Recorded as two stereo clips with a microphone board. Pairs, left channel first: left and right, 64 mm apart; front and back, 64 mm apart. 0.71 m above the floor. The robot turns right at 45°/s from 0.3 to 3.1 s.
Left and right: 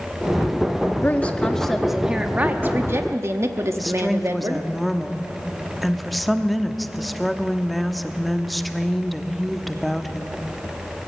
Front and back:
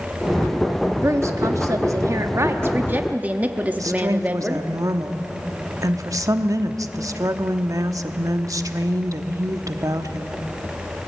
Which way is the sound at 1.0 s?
145° left.